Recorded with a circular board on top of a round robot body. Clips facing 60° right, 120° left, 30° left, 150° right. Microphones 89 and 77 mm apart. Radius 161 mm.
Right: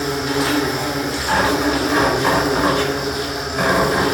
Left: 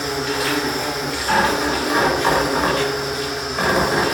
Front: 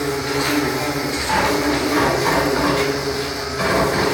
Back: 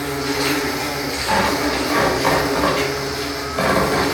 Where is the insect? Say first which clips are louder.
Right 3 dB, front 1 dB; 15° right, 1.5 m.